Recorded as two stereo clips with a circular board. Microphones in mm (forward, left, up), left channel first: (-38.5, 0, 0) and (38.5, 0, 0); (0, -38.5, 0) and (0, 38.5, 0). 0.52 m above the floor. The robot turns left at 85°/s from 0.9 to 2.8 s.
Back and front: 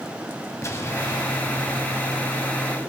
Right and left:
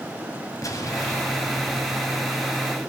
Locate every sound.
0.6 s an explosion: 130° right, 2.5 m; by 2.6 s 90° left, 2.5 m